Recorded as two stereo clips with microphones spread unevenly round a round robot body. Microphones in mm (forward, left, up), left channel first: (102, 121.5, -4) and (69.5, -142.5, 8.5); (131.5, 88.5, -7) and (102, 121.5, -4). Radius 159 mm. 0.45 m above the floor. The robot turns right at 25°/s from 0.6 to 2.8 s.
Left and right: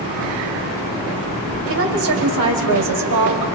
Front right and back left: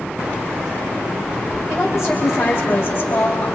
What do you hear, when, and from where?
1.7 s a woman speaking: 145° right, 2.5 m; by 3.5 s 115° right, 2.5 m